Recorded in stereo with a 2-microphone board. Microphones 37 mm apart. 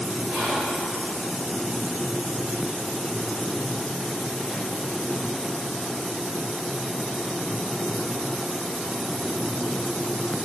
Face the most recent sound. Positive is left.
turn(degrees=-55)  # may be behind; listen again after turning